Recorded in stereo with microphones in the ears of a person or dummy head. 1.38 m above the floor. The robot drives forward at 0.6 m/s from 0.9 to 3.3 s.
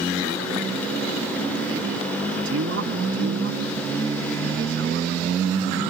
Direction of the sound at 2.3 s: 65° right (ahead or behind).